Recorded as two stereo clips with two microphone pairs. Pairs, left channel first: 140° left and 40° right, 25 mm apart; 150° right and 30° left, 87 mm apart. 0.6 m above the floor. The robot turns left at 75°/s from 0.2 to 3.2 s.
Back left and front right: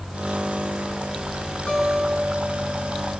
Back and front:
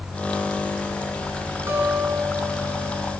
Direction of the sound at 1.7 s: 90° left.